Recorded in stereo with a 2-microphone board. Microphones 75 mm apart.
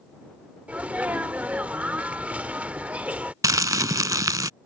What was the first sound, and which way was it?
A sneeze, 15° right (ahead or behind).